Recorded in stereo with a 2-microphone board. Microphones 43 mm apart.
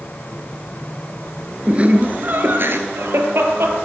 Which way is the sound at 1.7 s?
20° right (ahead or behind).